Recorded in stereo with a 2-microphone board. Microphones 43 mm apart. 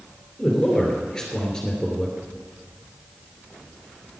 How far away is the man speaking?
About 3 m.